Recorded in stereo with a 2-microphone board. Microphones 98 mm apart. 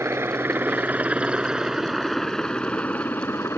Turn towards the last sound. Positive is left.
turn(degrees=30)  # may be behind; listen again after turning